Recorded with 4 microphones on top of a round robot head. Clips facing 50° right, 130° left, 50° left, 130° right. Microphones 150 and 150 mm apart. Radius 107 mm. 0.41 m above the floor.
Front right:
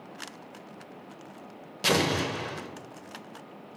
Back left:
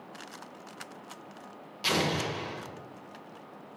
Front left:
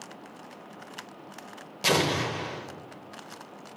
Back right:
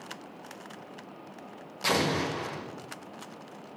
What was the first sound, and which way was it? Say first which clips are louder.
An explosion: front right 4 dB, front left 2 dB; 15° right.